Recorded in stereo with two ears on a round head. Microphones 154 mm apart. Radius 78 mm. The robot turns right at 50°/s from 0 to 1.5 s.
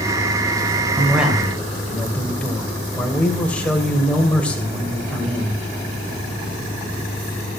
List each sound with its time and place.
1.0 s a man speaking: 15° right (ahead or behind), 2 m; by 5.5 s 5° left (ahead or behind), 2 m